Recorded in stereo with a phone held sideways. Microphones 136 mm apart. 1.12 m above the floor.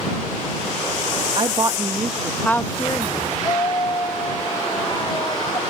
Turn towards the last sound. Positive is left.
turn(degrees=35)  # may be behind; listen again after turning